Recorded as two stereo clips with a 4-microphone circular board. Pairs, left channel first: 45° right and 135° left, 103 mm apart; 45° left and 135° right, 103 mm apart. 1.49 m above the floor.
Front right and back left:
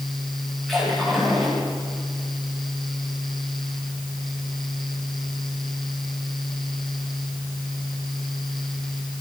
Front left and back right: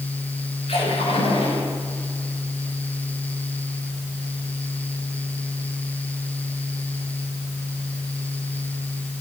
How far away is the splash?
About 8.5 m.